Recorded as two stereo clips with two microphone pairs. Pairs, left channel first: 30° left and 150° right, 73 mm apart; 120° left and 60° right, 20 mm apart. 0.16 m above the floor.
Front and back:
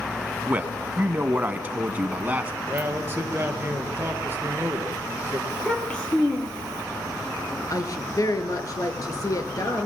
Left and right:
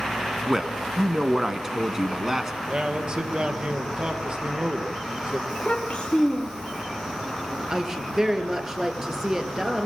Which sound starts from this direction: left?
A child speaking, at 5.5 s.